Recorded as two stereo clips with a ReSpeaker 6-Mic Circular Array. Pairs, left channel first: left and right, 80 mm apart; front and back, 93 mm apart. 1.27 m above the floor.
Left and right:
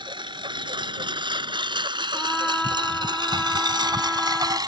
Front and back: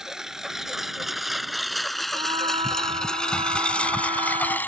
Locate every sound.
0.0 s a lawn mower: 95° right; by 4.7 s 65° right
2.1 s a trumpet: 170° left